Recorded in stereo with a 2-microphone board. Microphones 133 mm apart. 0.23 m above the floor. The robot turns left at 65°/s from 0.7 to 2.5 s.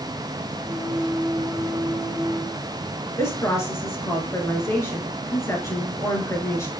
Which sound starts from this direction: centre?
A woman speaking, at 3.2 s.